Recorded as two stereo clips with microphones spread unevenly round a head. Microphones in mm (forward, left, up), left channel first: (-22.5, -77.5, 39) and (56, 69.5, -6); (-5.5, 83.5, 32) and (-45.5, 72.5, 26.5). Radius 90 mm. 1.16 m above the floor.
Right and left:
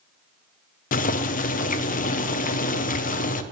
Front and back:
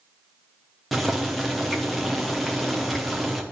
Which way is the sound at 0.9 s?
80° right.